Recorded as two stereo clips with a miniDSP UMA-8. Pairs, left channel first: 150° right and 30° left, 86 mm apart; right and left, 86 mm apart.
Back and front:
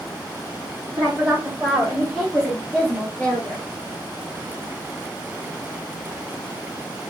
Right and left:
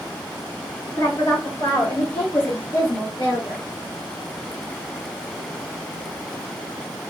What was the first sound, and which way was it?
A woman speaking, 45° right.